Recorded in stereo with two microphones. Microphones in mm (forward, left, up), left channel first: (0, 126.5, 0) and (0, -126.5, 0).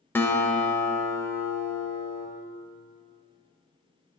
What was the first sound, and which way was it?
A guitar, 10° left (ahead or behind).